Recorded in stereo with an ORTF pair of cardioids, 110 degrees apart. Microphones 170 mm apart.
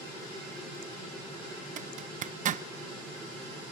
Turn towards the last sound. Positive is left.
turn(degrees=-50)